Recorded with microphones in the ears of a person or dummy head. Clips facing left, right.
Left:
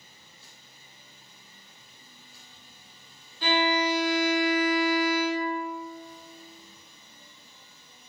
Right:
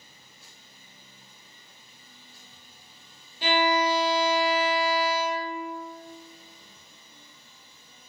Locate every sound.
3.4 s a violin: 15° right (ahead or behind), 0.6 m